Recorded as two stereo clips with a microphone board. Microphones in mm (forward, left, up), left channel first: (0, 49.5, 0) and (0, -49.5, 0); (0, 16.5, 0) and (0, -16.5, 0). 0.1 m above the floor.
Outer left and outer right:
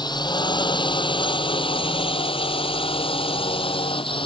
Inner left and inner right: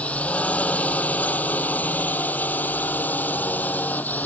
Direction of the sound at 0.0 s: 45° left (ahead or behind).